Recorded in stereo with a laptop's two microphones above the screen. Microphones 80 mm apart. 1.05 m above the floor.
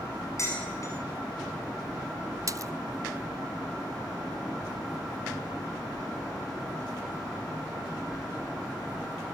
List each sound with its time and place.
0.4 s dishes clattering: 40° left (ahead or behind), 7 m
2.5 s a splash: 45° right (ahead or behind), 0.6 m